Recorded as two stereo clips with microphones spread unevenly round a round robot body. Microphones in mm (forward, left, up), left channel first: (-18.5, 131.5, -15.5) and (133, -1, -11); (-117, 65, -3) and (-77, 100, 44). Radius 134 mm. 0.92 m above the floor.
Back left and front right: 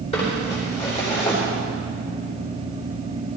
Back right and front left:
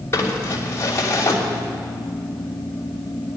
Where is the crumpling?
155° right, 3 m.